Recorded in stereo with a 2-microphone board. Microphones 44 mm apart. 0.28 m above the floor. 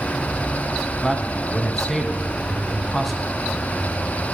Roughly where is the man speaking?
Centre.